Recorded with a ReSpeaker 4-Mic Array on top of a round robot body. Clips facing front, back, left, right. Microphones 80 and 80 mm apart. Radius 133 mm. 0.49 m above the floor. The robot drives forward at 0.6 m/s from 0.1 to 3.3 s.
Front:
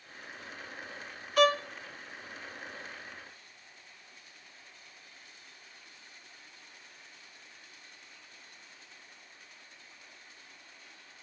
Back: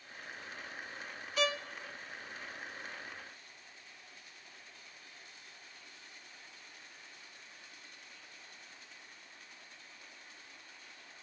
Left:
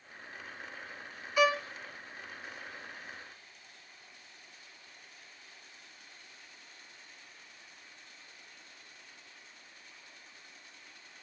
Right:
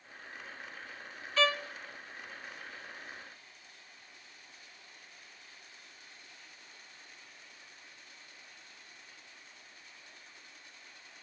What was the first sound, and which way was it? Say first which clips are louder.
A violin: front 9 dB, left 3 dB; 15° left.